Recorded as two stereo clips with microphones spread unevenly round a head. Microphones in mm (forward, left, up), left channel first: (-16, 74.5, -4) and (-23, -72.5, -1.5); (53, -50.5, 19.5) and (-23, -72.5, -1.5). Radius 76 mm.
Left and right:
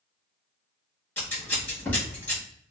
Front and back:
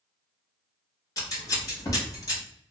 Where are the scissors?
10° left, 1.0 m.